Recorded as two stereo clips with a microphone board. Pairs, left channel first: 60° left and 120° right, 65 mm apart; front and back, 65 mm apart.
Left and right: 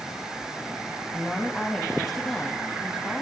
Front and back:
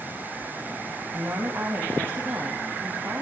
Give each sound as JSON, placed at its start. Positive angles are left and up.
{"t": 1.1, "sound": "a woman speaking", "azimuth_deg": 140, "distance_m": 1.8}